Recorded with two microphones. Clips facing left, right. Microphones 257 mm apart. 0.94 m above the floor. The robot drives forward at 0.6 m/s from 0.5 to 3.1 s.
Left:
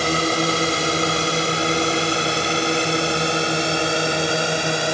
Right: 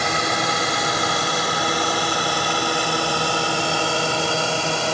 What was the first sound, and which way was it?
A drone, 35° left (ahead or behind).